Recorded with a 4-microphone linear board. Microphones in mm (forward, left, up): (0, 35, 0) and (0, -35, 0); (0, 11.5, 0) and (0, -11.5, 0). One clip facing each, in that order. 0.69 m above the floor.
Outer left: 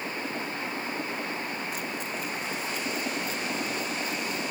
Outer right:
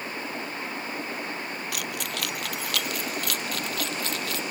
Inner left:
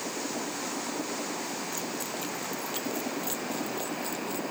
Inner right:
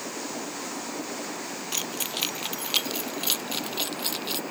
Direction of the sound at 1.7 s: 75° right (ahead or behind).